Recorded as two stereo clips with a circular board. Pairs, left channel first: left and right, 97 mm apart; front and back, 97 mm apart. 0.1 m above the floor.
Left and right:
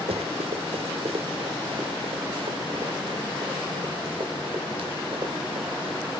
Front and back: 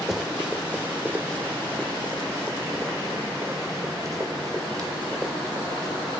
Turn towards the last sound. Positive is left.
turn(degrees=-125)